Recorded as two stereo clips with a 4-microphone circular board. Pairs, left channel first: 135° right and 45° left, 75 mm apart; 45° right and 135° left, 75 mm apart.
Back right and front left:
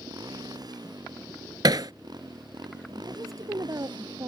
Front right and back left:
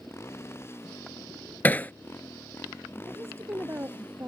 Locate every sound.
0.0 s a motorcycle: 10° left; by 4.3 s 20° left
1.6 s hammering: 20° left
3.1 s a woman speaking: 85° left